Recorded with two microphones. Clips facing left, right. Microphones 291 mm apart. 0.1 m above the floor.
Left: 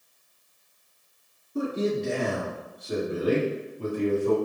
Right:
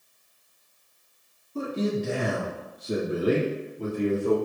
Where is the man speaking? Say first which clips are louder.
Left 1 dB; 15° left (ahead or behind), 1.1 m; by 4.4 s 60° right (ahead or behind), 2 m.